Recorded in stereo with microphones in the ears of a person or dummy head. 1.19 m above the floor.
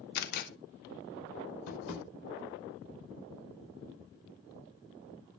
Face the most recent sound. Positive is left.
turn(degrees=80)